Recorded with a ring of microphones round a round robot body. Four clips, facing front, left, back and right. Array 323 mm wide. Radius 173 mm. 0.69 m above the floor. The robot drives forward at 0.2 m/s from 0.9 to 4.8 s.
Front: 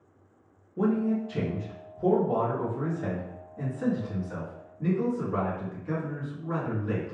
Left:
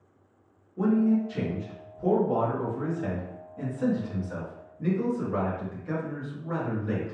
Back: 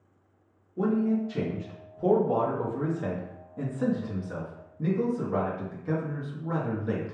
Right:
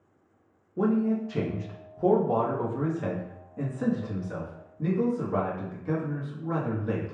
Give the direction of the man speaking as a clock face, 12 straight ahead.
2 o'clock.